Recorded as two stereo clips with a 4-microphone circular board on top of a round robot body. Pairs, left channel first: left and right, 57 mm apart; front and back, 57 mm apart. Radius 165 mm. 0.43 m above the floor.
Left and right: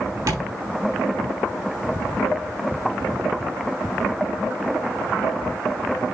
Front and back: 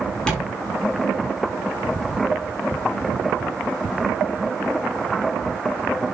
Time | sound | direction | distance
0.3 | tapping | 75° right | 5 m